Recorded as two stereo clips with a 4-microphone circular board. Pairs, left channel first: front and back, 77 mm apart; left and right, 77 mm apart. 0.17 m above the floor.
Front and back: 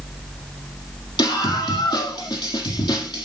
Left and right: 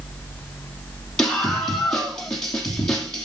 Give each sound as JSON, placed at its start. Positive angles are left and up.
{"t": 1.2, "sound": "a scream", "azimuth_deg": 10, "distance_m": 5.0}